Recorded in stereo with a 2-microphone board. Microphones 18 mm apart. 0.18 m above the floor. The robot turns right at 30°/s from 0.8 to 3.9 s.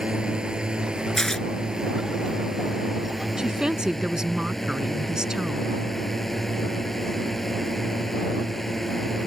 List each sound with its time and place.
0.0 s a drone: 75° right; by 9.3 s 20° left
1.2 s tearing paper: 25° left (ahead or behind); by 1.5 s 15° left (ahead or behind)
3.4 s a woman speaking: 50° right (ahead or behind); by 5.7 s 45° right (ahead or behind)